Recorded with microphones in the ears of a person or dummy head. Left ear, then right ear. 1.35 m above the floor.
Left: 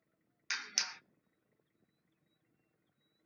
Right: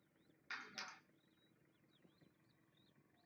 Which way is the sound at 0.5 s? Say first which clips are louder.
Left 13 dB; 70° left (ahead or behind).